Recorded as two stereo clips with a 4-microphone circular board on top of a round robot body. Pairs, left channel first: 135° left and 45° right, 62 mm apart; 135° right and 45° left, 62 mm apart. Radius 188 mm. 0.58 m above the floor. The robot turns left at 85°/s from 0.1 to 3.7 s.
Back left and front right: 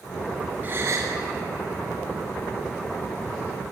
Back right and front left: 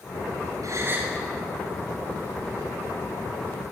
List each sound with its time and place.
0.6 s a gasp: 15° left, 5 m; by 1.1 s 25° right, 5 m